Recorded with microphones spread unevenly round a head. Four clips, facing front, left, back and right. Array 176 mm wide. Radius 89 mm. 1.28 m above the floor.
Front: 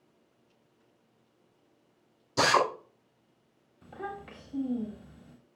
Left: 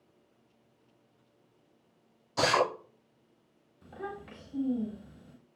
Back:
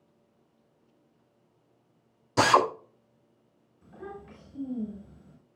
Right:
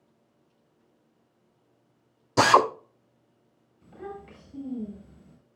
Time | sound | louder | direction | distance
2.4 | a drill | right 8 dB, back 3 dB | 100° right | 3 m
3.8 | a child speaking | right 1 dB, front 3 dB | 10° left | 3.5 m